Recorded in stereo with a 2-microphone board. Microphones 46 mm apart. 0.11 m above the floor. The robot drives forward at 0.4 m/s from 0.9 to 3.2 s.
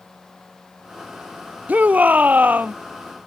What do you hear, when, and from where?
1.7 s a shout: 35° right (ahead or behind); by 2.8 s 40° right (ahead or behind)